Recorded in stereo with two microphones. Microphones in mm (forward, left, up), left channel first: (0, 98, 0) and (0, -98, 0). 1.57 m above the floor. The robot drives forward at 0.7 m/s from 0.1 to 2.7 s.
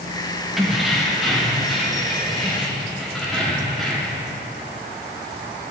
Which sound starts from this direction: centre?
Keys jangling, at 0.6 s.